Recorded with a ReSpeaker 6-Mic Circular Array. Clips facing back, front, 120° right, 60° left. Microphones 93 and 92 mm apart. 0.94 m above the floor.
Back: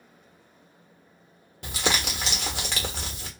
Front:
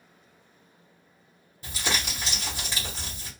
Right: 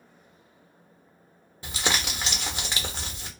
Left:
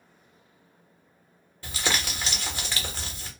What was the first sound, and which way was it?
Crumpling, 170° left.